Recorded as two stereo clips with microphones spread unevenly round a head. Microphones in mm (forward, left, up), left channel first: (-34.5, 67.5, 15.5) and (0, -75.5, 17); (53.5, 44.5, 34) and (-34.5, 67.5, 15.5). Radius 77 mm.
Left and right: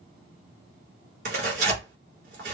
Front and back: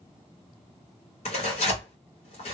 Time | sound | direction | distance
1.2 | tearing paper | 35° right | 1.4 m